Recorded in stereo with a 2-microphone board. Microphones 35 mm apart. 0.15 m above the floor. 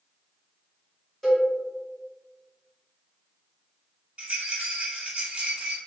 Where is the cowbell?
Centre (ahead or behind), 1.5 m.